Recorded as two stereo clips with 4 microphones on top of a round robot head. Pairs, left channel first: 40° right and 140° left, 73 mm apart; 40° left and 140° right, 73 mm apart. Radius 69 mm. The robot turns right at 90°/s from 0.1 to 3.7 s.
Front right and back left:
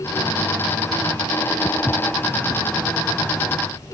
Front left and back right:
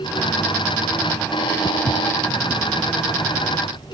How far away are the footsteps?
About 1.7 m.